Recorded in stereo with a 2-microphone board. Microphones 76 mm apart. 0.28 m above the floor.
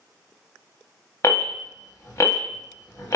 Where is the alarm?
45° left (ahead or behind), 1.0 m.